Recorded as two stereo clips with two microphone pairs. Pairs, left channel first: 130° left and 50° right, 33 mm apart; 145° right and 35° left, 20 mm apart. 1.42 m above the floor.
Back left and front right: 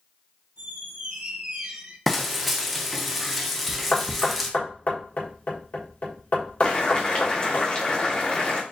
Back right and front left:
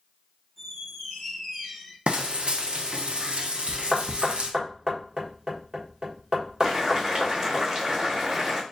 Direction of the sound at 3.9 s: 95° left.